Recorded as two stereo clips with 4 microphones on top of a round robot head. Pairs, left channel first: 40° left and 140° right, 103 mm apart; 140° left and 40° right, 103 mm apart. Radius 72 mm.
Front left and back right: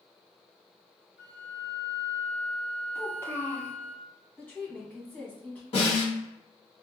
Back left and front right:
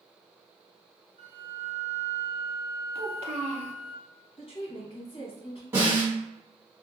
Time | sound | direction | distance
1.2 | a flute | 10° right | 1.4 m
3.0 | a child speaking | 25° right | 0.7 m
4.4 | a woman speaking | 115° left | 1.2 m
5.7 | a snare drum | 25° left | 2.0 m